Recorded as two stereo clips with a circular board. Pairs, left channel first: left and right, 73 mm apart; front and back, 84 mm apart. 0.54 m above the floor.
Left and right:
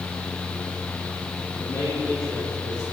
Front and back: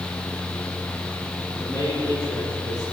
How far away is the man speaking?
About 9 m.